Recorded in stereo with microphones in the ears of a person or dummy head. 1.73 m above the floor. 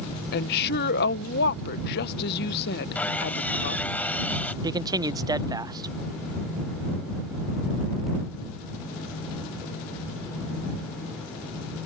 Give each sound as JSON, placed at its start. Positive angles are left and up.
{"t": 0.3, "sound": "a woman speaking", "side_deg": 55}
{"t": 3.0, "sound": "sawing", "side_deg": 10}
{"t": 4.6, "sound": "a man speaking", "side_deg": -15}